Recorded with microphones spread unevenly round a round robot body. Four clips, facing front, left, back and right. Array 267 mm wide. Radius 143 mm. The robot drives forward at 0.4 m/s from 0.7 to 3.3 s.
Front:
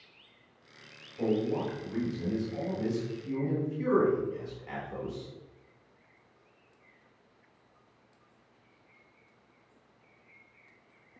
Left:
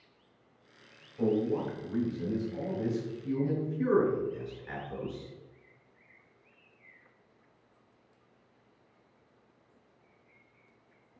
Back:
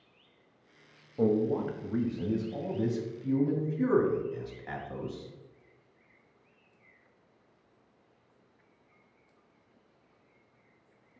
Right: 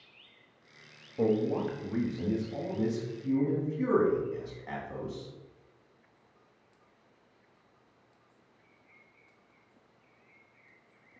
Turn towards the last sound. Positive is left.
turn(degrees=-155)